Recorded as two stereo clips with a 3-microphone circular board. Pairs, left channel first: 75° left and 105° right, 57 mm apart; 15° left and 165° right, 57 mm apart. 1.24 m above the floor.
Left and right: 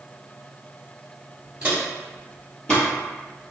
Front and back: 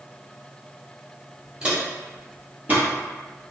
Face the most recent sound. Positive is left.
turn(degrees=145)